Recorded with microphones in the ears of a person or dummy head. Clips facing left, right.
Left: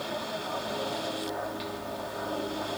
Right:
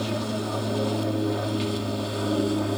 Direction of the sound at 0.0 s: 40° right (ahead or behind).